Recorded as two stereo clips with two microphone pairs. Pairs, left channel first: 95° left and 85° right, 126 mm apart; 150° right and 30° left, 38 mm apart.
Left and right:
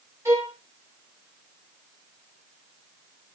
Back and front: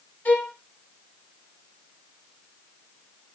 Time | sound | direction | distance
0.2 | a violin | 155° right | 2.5 m